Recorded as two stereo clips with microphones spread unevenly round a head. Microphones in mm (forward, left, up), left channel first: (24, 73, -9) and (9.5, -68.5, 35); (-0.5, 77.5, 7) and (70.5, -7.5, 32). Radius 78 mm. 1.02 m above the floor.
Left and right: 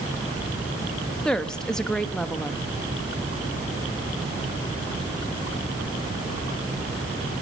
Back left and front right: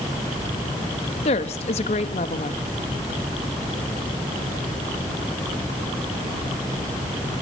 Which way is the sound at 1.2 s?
165° left.